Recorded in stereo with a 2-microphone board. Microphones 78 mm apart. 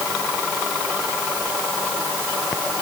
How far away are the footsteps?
I don't hear footsteps.